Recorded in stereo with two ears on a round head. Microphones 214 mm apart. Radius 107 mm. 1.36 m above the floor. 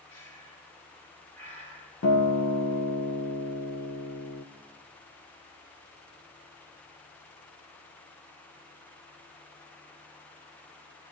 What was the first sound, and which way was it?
Breathing, 60° left (ahead or behind).